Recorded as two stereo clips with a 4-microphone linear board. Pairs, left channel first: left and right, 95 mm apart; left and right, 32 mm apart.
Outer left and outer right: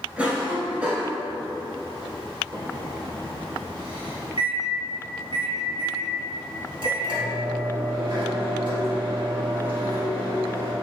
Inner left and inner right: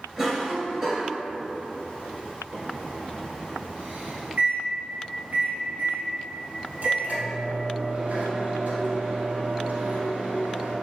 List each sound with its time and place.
0.2 s a cough: 15° right (ahead or behind), 1.3 m
2.5 s a microwave: 60° right (ahead or behind), 1.7 m